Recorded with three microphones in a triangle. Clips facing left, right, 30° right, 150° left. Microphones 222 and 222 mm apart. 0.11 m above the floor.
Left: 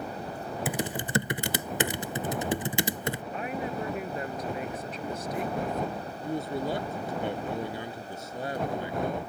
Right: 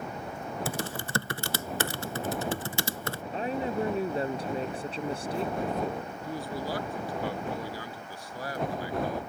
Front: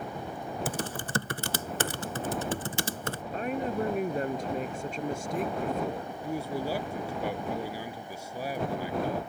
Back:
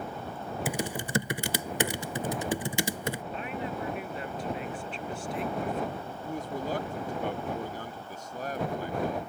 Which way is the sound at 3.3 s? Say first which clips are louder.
Right 7 dB, front 5 dB; 45° right.